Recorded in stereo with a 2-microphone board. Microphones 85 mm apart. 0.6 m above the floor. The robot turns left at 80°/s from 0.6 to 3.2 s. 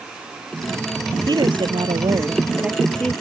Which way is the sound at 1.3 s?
50° right.